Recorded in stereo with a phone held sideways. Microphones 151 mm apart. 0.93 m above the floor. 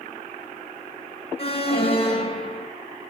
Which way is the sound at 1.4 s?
40° left (ahead or behind).